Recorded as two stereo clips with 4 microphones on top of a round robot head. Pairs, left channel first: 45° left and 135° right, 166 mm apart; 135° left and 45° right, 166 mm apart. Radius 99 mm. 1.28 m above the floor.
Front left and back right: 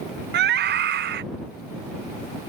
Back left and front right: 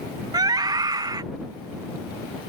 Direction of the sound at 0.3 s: 115° right.